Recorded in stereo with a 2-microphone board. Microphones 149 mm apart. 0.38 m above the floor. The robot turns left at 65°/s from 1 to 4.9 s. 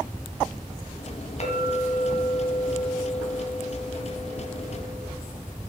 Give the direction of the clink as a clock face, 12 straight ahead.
10 o'clock.